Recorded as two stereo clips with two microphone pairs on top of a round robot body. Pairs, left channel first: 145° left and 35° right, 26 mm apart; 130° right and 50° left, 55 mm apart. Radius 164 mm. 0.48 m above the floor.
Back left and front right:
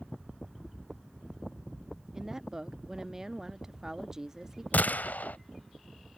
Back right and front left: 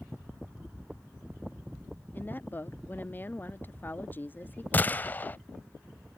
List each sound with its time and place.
2.1 s a woman speaking: 100° right
4.7 s a gunshot: 165° left